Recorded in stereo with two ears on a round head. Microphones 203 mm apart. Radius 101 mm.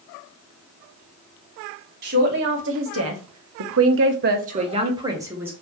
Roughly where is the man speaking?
Right.